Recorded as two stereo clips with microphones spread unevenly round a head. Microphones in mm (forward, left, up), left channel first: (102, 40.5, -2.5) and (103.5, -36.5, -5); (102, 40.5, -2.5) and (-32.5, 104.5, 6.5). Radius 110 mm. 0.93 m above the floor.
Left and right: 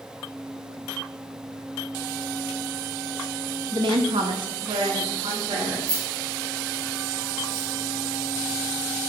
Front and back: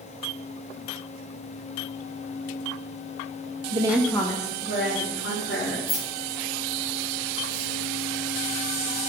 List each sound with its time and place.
3.7 s a woman speaking: 145° right, 0.5 m; by 5.8 s 70° right, 2 m
5.9 s keys jangling: 90° right, 2.5 m